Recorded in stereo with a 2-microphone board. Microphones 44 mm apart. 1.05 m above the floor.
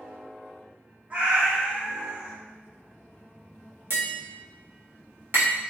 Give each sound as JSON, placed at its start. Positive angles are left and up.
{"t": 1.1, "sound": "a cat meowing", "side_deg": -40, "distance_m": 1.2}
{"t": 3.9, "sound": "tapping", "side_deg": -60, "distance_m": 1.2}